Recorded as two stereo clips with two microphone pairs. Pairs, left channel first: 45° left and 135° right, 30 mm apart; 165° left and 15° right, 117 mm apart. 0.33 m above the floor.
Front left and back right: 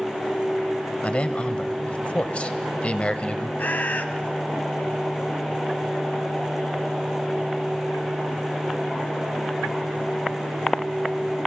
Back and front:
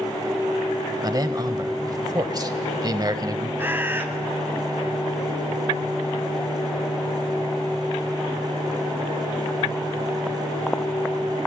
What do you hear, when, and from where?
1.0 s a man speaking: 25° left, 1.2 m
3.6 s a bird: 55° left, 1.2 m